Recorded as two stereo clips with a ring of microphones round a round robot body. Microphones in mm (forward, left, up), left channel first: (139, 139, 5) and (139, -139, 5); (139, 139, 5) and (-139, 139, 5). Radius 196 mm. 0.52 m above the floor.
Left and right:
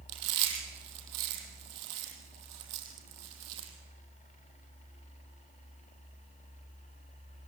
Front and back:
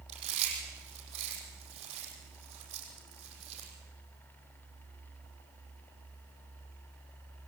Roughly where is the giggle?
No giggle in this recording.